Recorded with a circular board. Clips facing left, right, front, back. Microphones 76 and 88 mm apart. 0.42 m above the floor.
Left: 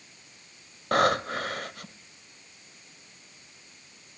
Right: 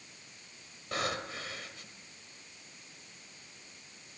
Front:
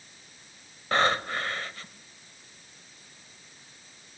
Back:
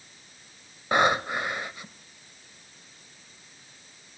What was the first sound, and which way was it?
Breathing, 105° left.